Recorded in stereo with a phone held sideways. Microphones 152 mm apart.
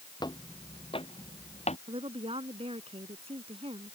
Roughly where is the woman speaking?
Right.